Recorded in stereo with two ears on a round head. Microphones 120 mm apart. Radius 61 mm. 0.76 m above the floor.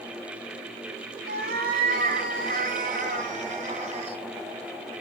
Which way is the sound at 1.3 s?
85° right.